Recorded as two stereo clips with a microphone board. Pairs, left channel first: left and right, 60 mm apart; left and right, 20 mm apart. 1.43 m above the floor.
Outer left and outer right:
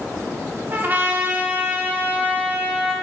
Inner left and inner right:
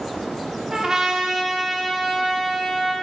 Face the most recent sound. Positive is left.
turn(degrees=-30)  # may be behind; listen again after turning